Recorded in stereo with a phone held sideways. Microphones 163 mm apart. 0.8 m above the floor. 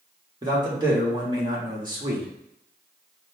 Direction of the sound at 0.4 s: 25° right (ahead or behind).